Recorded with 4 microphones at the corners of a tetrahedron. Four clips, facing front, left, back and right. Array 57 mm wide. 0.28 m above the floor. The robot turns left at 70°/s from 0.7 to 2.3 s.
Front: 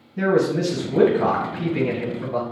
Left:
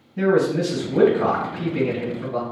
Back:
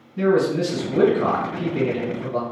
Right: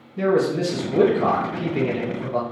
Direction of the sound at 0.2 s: 60° left.